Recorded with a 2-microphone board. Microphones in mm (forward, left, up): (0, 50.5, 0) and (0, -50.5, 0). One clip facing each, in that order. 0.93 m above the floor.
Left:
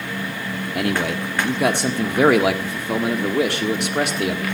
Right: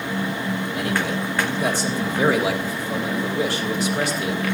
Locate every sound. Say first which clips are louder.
0.8 s a man speaking: left 5 dB; 65° left (ahead or behind), 1.7 m